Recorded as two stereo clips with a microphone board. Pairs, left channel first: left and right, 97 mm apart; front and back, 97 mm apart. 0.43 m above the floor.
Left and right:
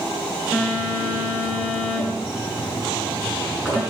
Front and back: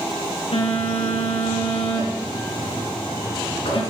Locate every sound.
0.5 s a phone buzzing: 10° right, 5 m